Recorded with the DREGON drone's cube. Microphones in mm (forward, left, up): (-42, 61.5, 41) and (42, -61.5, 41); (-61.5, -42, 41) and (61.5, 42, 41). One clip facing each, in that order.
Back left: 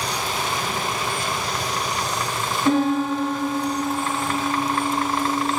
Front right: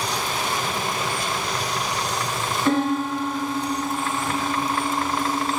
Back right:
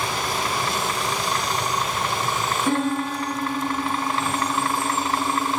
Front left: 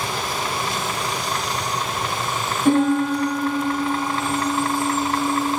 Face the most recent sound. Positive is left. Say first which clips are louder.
# back left 2 dB, front left 8 dB
turn(degrees=50)